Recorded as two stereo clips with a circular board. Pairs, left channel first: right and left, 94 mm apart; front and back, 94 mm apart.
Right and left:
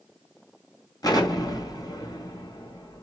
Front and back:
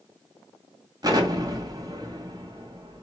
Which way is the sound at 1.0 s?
135° right.